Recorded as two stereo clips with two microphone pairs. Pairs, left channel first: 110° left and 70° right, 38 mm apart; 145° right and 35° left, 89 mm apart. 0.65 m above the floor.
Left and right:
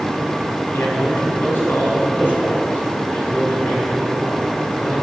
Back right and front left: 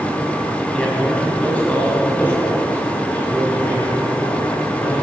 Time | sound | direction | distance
0.7 | a man speaking | 135° left | 4 m